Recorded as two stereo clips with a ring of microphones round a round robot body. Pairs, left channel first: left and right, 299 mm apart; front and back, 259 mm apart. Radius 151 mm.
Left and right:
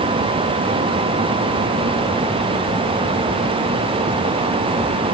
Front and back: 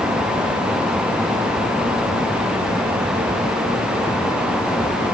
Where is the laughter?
No laughter in this recording.